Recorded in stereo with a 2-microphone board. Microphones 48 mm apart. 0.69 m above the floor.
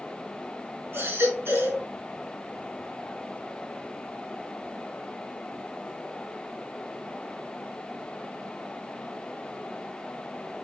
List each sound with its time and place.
0.9 s a baby crying: 55° right (ahead or behind), 4 m